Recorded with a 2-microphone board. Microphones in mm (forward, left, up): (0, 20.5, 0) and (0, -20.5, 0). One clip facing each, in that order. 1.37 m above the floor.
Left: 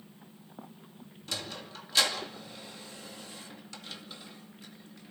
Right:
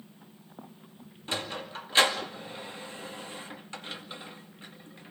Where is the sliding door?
30° right (ahead or behind), 2.5 m.